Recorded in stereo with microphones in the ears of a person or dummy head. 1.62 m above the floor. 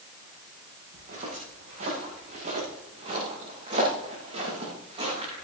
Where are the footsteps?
40° right (ahead or behind), 8.5 m; by 5.4 s 25° right (ahead or behind), 10.5 m.